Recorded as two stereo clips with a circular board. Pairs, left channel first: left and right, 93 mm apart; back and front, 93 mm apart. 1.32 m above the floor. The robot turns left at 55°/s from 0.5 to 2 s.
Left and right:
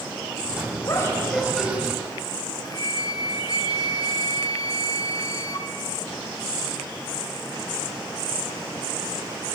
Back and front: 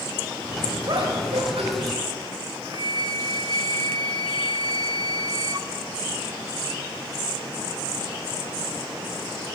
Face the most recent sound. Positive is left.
turn(degrees=45)